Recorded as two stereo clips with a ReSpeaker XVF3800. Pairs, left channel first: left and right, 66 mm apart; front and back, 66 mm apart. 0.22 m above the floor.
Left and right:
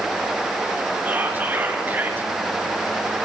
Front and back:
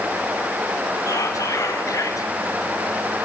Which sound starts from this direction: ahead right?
Whispering, at 1.1 s.